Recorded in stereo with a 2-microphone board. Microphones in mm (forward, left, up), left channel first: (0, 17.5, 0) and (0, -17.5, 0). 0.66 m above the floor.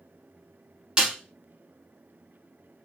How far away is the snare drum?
About 1.3 m.